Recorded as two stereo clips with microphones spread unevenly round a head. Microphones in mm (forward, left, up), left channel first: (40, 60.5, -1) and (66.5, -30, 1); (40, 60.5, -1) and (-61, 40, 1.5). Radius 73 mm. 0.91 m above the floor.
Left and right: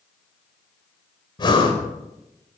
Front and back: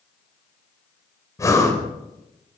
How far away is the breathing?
About 4 m.